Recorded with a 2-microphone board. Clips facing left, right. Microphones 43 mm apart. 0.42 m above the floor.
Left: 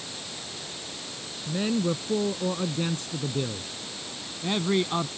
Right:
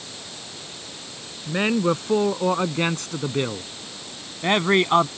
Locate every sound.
1.5 s a man speaking: 75° right (ahead or behind); by 5.1 s 60° right (ahead or behind)